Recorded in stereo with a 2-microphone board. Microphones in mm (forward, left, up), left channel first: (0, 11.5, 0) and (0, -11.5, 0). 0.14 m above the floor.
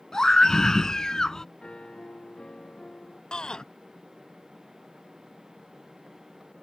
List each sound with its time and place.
0.1 s a scream: 25° left (ahead or behind)
1.6 s a piano: 50° left (ahead or behind)
3.3 s a shout: 40° left (ahead or behind)